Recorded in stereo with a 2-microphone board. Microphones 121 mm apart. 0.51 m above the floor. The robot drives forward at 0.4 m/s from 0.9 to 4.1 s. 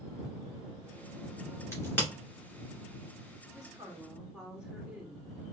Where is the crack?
20° left (ahead or behind), 2 m.